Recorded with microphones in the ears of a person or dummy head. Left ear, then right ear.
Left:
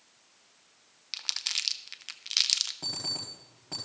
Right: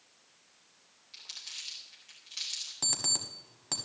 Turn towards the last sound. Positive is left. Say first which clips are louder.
# right 2 dB
turn(degrees=-40)  # may be behind; listen again after turning